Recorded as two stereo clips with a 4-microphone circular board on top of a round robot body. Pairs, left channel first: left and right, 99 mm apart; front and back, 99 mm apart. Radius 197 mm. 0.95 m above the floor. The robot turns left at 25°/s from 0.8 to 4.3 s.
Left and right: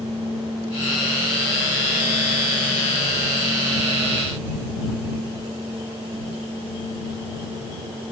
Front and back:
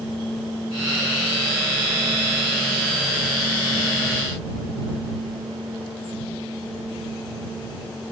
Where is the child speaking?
No child speaking in this recording.